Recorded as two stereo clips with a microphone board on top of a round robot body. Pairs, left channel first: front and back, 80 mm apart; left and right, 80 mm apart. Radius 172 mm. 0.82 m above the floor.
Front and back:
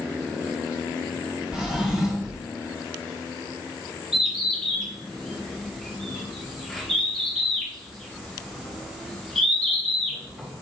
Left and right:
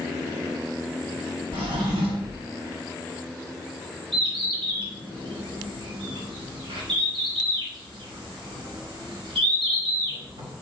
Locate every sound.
1.5 s a drawer: 100° right, 1.9 m
4.1 s a bird: 90° right, 3.5 m